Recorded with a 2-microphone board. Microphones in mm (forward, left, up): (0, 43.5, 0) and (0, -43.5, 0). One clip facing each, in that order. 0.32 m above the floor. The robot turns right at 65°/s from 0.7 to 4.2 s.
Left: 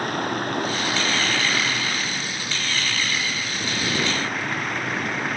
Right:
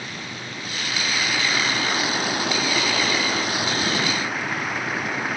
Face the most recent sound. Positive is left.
turn(degrees=-5)